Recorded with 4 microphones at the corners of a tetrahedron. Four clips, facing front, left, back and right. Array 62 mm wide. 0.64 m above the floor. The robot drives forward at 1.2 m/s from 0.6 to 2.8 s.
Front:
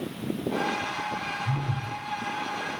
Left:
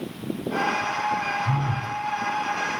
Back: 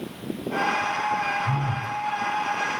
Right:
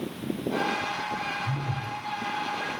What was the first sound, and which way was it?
A phone buzzing, 110° left.